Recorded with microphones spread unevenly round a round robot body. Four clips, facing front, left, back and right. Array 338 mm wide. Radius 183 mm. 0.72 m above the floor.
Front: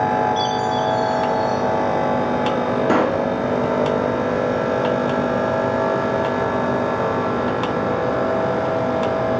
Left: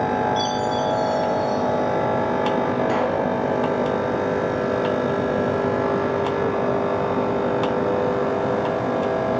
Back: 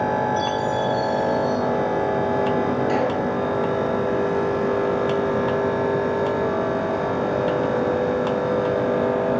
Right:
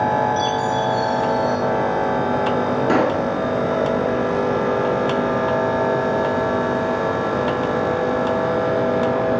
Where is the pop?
40° right, 3.5 m.